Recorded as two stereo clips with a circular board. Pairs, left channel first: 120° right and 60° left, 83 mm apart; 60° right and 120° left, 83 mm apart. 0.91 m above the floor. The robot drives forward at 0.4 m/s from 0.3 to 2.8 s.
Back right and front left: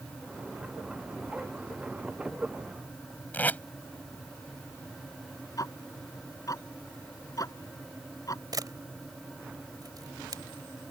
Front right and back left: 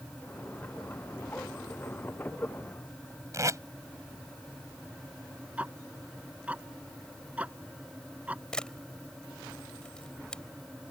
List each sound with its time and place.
3.3 s tape being pulled: 170° left
5.6 s ticking: 165° right
8.5 s a camera shutter: 20° left